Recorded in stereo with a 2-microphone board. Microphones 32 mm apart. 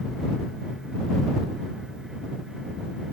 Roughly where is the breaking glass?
No breaking glass in this recording.